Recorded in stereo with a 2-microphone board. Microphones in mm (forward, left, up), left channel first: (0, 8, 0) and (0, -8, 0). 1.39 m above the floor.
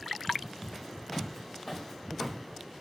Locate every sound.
0.6 s footsteps: 25° left (ahead or behind), 3.5 m; by 2.4 s 15° left (ahead or behind), 2.5 m